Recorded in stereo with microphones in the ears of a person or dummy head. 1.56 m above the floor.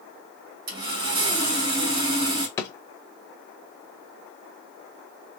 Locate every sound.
0.7 s sawing: 55° right (ahead or behind), 2 m
2.6 s a drawer: 25° left (ahead or behind), 1.1 m